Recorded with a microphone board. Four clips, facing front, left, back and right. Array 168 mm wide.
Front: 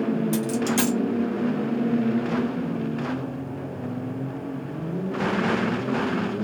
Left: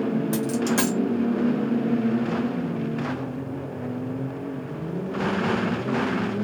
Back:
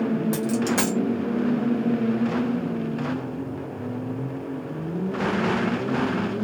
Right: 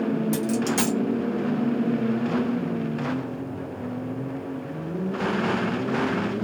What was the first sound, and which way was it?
A dropped coin, 145° left.